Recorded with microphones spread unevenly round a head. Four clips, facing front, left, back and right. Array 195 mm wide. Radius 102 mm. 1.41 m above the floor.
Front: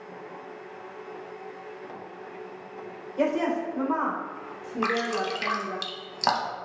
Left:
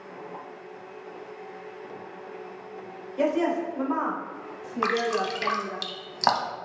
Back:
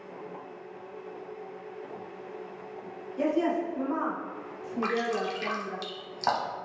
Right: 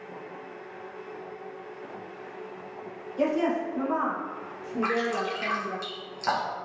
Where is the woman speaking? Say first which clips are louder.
Left 1 dB, front 1 dB; straight ahead, 1.2 m; by 5.8 s 20° right, 3 m.